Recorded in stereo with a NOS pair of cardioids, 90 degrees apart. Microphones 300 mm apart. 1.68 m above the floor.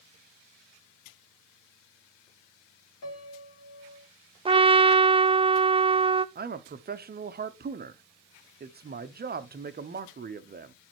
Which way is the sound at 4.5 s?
20° right.